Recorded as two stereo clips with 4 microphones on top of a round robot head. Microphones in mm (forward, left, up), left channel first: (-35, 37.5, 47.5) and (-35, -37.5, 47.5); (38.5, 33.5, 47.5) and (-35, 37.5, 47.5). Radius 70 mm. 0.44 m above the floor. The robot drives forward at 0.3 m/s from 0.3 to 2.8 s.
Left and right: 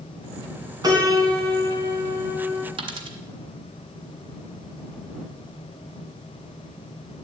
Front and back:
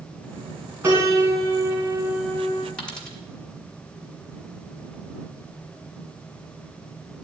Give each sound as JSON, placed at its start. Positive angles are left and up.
{"t": 0.8, "sound": "a piano", "azimuth_deg": -120, "distance_m": 3.0}
{"t": 2.8, "sound": "a dropped coin", "azimuth_deg": -85, "distance_m": 1.6}